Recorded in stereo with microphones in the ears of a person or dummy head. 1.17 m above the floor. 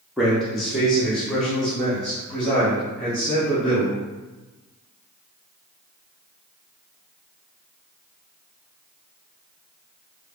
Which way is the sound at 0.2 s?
5° right (ahead or behind).